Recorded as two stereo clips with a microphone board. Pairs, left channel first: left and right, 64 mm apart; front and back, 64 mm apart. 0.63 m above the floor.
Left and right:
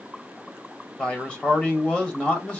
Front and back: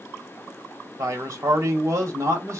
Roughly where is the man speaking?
Behind.